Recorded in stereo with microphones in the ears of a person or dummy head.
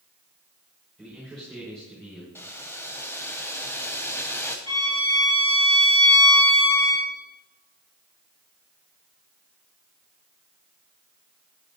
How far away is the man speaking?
About 4.5 m.